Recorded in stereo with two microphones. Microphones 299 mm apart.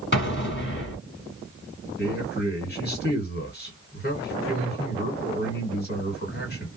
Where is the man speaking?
35° left (ahead or behind), 1.9 m.